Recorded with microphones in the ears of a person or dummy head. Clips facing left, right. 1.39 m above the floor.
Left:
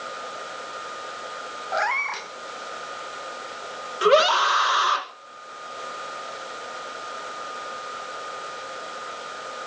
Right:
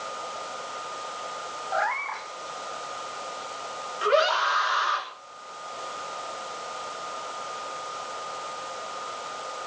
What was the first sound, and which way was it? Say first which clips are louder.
A cat meowing: left 2 dB; 50° left (ahead or behind).